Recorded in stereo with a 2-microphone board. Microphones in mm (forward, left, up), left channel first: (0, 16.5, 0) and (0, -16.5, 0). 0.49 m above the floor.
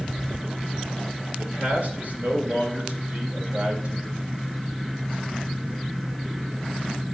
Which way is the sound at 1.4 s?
50° right (ahead or behind).